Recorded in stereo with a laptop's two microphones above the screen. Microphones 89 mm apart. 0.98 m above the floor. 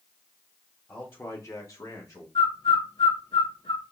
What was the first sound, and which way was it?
A man speaking, 10° left (ahead or behind).